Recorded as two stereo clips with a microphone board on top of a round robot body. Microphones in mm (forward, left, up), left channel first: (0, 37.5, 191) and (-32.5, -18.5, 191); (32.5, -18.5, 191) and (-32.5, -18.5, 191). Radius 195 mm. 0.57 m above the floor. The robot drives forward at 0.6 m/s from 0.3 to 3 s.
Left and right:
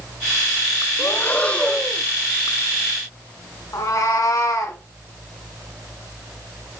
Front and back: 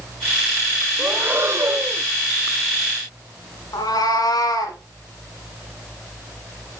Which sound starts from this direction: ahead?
A cat meowing, at 3.7 s.